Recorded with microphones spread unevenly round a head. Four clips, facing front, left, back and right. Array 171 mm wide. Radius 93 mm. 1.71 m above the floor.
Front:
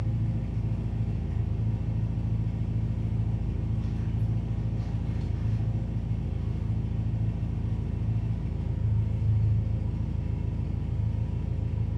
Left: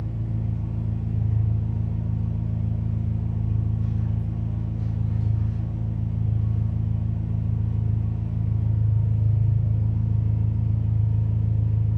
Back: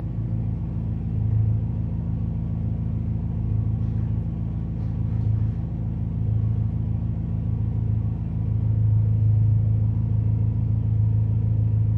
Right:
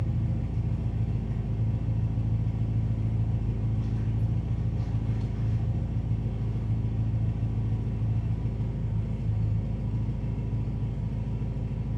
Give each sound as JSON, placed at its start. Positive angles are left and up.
{"t": 0.0, "sound": "an engine running", "azimuth_deg": -165, "distance_m": 0.8}